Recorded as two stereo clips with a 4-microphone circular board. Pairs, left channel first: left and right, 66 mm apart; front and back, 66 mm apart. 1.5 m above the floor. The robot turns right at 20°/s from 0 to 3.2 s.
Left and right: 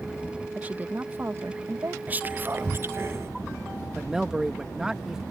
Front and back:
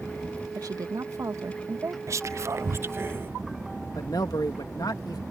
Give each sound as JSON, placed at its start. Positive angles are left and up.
{"t": 0.6, "sound": "a woman speaking", "azimuth_deg": -155}
{"t": 2.1, "sound": "whispering", "azimuth_deg": -150}
{"t": 4.0, "sound": "a man speaking", "azimuth_deg": -10}